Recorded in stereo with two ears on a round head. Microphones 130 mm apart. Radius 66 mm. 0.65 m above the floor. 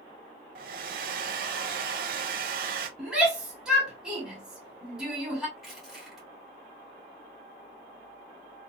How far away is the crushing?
About 1.7 m.